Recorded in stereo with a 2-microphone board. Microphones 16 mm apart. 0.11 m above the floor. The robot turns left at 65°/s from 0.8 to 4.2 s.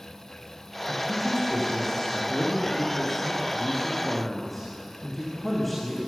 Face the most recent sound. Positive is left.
turn(degrees=0)